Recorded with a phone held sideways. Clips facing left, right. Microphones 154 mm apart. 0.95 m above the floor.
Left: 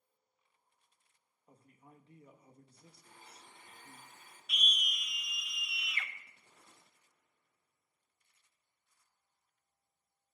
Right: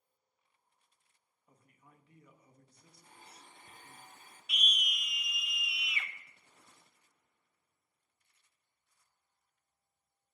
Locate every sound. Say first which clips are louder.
1.5 s a man speaking: left 4 dB; 30° left (ahead or behind), 1.1 m
3.0 s a blender: right 2 dB; 50° right (ahead or behind), 6.5 m
4.5 s a scream: right 1 dB; 5° right (ahead or behind), 0.9 m